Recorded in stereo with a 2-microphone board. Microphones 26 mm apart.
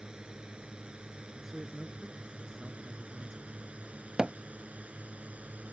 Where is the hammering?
25° right (ahead or behind).